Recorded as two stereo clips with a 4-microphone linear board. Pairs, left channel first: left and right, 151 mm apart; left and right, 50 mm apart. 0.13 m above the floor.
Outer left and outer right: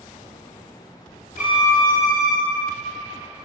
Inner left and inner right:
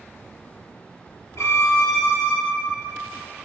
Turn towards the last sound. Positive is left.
turn(degrees=60)  # may be behind; listen again after turning